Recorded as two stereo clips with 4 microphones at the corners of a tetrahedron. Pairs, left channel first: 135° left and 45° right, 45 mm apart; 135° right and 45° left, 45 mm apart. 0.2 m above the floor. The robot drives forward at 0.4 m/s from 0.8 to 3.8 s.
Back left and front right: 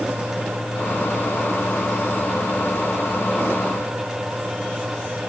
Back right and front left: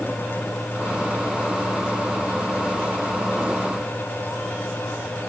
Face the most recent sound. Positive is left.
No sound to turn to.